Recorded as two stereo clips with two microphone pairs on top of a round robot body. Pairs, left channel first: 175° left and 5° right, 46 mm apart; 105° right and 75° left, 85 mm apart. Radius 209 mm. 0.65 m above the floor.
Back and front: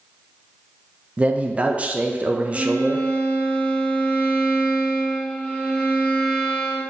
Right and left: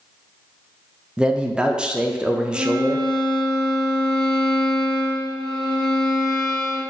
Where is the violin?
115° left, 1.4 m.